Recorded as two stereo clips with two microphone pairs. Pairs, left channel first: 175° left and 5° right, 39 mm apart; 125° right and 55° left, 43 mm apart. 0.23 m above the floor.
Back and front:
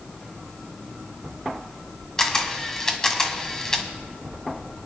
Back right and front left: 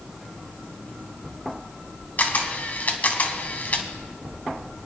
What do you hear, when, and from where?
2.2 s a camera shutter: 110° right, 1.2 m